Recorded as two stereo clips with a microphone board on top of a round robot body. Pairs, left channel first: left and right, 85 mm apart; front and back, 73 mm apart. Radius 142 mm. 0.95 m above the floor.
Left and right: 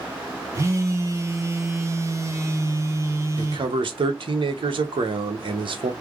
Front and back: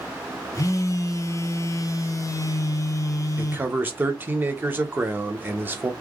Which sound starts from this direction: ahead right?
A phone buzzing, at 0.6 s.